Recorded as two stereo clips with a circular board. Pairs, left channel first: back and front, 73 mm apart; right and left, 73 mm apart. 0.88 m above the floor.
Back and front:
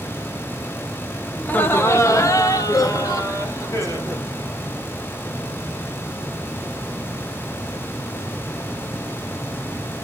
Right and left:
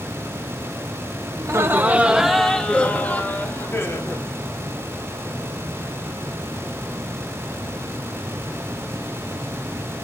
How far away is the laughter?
About 1.2 m.